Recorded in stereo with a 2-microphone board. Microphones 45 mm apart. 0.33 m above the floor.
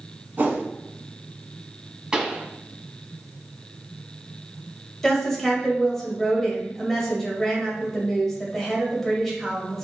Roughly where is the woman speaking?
Centre.